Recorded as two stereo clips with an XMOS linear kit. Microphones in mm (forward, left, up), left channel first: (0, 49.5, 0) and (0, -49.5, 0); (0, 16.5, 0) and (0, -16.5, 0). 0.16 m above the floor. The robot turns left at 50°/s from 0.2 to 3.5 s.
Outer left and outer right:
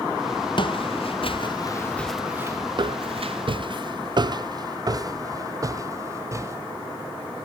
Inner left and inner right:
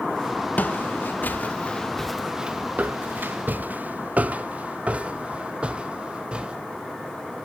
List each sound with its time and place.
0.6 s footsteps: 60° left (ahead or behind), 1.4 m; by 6.6 s 30° right (ahead or behind), 2.5 m